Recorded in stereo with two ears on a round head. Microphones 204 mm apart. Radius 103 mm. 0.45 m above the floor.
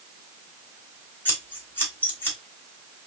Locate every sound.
1.2 s scissors: 10° left (ahead or behind), 2 m